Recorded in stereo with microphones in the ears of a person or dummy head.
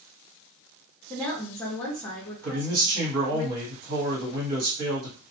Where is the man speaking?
50° right (ahead or behind), 1.2 m.